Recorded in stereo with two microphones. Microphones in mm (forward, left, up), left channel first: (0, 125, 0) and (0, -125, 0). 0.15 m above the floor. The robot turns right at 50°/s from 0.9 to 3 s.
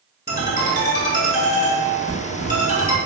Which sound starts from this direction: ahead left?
A ringtone, at 0.3 s.